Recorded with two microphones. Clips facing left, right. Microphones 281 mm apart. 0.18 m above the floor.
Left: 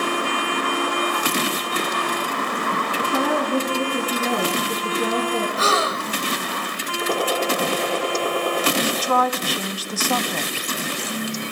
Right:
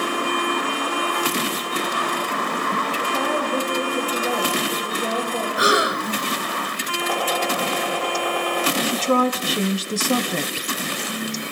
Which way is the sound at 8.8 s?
25° right (ahead or behind).